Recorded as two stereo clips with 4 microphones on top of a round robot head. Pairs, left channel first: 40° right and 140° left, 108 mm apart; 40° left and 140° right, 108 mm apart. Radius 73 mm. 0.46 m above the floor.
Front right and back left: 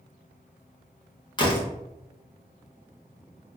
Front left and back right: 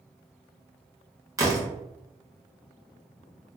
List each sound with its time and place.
1.4 s a door slam: 80° right, 1.1 m